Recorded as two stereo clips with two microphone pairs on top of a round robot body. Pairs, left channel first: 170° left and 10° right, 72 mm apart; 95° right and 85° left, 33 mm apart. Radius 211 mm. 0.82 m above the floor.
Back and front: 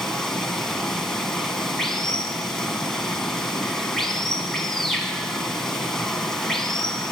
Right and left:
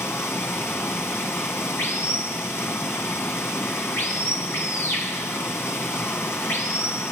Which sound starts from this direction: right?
Running water, at 0.0 s.